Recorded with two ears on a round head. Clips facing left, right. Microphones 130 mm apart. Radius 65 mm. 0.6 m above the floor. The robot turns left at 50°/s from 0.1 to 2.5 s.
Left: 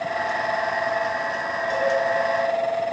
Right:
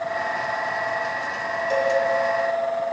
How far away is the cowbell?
About 2 m.